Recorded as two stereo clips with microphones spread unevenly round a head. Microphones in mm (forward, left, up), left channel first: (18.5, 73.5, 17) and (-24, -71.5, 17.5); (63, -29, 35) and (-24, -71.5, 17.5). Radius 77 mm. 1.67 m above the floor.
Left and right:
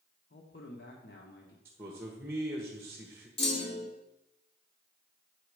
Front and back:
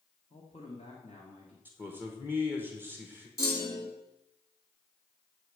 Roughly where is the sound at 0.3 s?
Ahead left.